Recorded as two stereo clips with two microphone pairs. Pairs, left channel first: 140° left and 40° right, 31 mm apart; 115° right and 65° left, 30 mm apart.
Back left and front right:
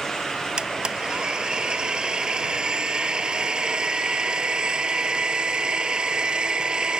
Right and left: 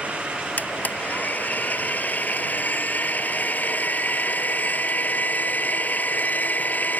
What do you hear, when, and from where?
0.6 s a blender: 100° right